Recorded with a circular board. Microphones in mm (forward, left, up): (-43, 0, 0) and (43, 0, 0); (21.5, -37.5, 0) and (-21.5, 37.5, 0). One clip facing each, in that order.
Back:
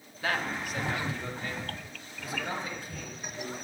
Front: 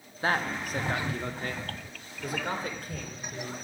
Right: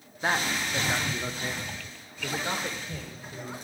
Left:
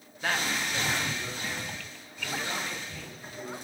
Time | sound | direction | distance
0.2 | a man speaking | 15° right | 1.0 m